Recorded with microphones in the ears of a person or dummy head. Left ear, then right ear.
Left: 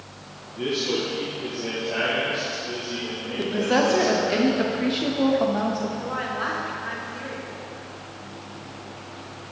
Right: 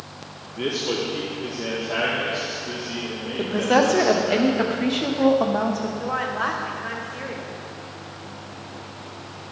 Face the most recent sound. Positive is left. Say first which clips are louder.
# right 3 dB
turn(degrees=-25)  # may be behind; listen again after turning